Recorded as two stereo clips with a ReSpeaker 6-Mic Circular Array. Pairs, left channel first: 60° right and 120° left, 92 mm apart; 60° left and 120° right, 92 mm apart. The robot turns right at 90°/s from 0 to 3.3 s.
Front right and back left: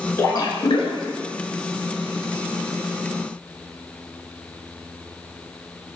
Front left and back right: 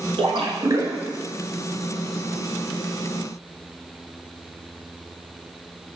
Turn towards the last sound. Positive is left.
turn(degrees=160)